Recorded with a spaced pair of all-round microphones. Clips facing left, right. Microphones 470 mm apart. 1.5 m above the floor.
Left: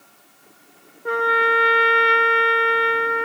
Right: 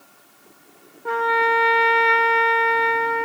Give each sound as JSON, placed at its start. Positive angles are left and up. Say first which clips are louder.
{"t": 1.1, "sound": "a trumpet", "louder": "left 1 dB", "side_deg": -10, "distance_m": 0.5}